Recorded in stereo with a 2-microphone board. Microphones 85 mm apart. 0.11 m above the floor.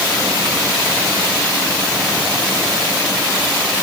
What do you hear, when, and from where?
Only background noise.